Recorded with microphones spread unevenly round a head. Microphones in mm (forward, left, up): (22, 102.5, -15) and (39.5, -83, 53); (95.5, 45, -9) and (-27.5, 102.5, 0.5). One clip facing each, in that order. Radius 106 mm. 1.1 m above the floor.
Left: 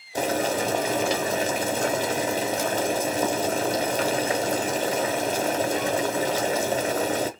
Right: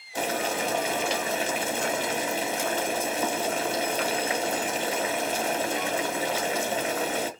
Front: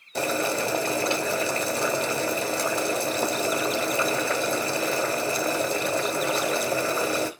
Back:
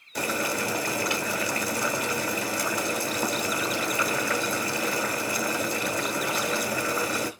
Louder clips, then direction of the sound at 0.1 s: Left 4 dB, front 3 dB; 35° left.